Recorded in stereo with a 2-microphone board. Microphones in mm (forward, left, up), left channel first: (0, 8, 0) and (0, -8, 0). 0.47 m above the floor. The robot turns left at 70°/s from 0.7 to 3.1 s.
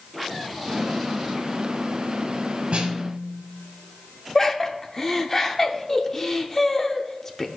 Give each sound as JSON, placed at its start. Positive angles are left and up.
{"t": 2.7, "sound": "a snare drum", "side_deg": -90, "distance_m": 1.7}
{"t": 4.3, "sound": "laughter", "side_deg": 20, "distance_m": 0.8}